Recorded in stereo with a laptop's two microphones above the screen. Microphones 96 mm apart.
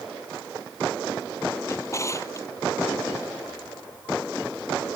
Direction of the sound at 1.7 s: 30° left (ahead or behind).